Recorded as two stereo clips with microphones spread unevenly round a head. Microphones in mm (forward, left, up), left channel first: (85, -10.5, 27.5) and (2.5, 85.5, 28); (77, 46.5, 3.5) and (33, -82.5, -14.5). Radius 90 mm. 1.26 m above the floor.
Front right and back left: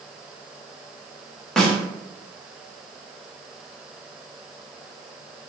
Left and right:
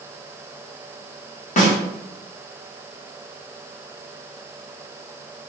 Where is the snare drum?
35° left, 1.0 m.